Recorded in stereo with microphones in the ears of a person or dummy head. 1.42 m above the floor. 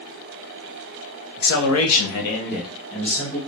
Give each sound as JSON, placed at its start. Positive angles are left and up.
{"t": 1.4, "sound": "a man speaking", "side_deg": 50, "distance_m": 0.9}